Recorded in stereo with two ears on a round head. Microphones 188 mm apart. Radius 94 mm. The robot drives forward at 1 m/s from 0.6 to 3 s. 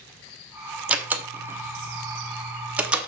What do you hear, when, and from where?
0.9 s a door slam: 5° right (ahead or behind), 1.1 m